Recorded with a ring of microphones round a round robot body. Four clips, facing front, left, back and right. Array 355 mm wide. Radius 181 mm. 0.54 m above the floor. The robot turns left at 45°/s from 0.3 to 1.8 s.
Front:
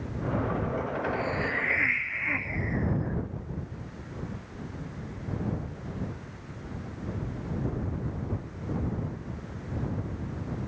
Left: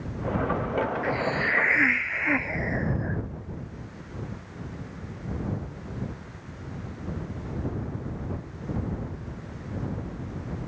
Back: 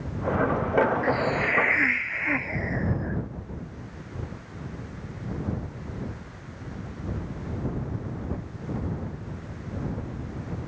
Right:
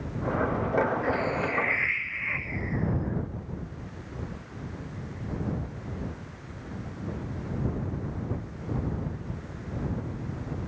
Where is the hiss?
145° left; by 3.2 s 110° left.